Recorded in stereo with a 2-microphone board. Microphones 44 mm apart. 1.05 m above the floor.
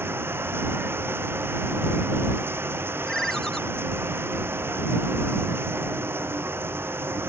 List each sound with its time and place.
0.0 s running water: 60° right (ahead or behind)
3.1 s a ringtone: 10° left (ahead or behind)